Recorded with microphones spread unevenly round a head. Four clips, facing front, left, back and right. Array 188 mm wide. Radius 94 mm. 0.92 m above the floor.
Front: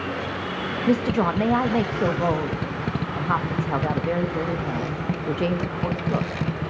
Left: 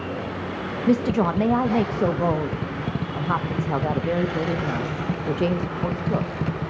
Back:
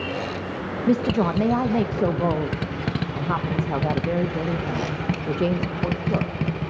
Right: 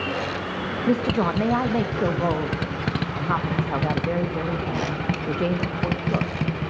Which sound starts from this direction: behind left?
A woman speaking, at 0.9 s.